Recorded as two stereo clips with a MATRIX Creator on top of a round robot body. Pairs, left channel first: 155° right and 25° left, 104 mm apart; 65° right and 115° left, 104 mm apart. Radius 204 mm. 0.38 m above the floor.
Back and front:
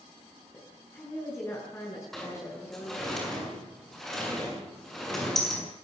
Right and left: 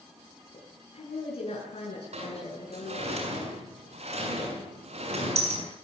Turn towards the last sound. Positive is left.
turn(degrees=115)